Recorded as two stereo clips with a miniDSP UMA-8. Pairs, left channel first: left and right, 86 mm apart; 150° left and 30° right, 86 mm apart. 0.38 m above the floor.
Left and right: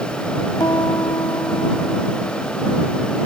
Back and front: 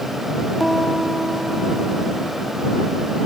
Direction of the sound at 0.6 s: 60° left.